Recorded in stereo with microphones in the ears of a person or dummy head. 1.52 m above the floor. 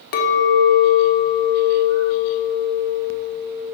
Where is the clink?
55° left (ahead or behind), 0.9 m.